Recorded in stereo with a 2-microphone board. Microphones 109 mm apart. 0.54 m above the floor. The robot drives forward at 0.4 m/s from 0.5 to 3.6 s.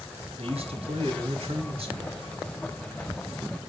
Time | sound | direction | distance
0.4 | a man speaking | 65° right (ahead or behind) | 4 m